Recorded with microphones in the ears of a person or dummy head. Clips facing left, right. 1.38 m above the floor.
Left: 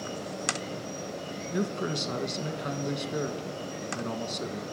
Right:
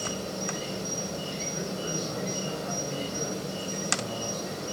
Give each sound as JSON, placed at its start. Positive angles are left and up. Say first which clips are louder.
{"t": 0.0, "sound": "an insect", "louder": "right 2 dB", "side_deg": -60, "distance_m": 3.0}
{"t": 1.5, "sound": "a man speaking", "louder": "left 6 dB", "side_deg": 85, "distance_m": 1.3}